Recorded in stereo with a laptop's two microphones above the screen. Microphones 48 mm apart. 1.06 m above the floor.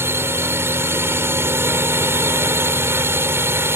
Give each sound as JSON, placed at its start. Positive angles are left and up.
{"t": 0.0, "sound": "a drone", "side_deg": -60}